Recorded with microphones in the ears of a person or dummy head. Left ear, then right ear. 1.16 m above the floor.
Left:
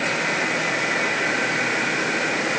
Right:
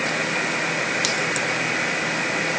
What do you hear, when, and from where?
Only background noise.